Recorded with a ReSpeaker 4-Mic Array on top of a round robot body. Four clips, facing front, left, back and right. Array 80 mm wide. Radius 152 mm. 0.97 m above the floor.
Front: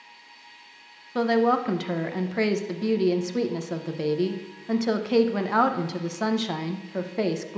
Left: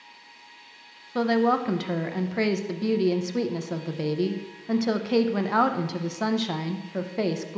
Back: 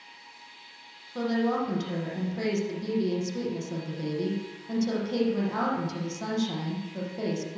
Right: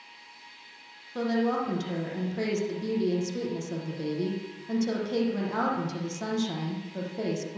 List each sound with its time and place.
1.1 s a woman speaking: 40° left, 1.1 m